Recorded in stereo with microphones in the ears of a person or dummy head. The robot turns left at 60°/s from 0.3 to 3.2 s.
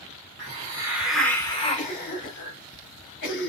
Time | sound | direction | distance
0.4 | a hiss | 135° right | 1.3 m
1.8 | a cough | 10° left (ahead or behind) | 1.7 m